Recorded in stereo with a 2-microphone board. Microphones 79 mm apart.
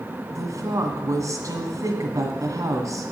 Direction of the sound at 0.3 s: 45° right (ahead or behind).